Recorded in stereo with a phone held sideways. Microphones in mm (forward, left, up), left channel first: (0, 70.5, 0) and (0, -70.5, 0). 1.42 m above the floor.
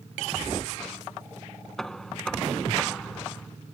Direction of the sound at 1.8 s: 5° left (ahead or behind).